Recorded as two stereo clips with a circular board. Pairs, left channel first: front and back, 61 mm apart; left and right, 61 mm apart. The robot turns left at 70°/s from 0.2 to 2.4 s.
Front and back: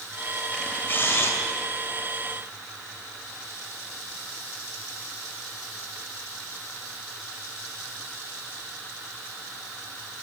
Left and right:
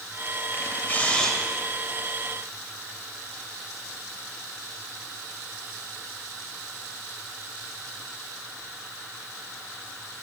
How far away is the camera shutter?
About 1.5 m.